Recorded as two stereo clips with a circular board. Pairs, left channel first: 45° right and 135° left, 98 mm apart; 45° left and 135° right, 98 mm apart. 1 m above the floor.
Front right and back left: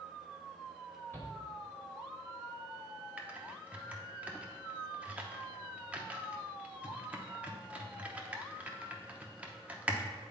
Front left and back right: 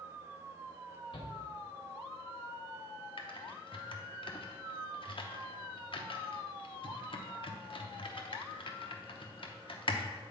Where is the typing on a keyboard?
60° left, 0.7 m.